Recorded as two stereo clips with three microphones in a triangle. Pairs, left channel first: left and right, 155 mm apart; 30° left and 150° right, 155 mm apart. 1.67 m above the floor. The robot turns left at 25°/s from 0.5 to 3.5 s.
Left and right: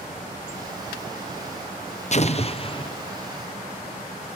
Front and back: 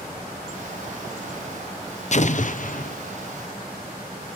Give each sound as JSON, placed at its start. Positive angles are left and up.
{"t": 2.1, "sound": "an explosion", "azimuth_deg": 60, "distance_m": 0.6}